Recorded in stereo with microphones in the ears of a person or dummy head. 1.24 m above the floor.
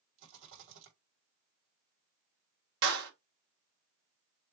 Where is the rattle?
75° right (ahead or behind), 3 m.